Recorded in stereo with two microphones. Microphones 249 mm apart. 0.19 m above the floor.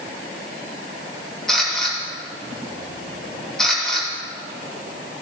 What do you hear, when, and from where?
1.5 s a camera shutter: centre (ahead or behind), 4.5 m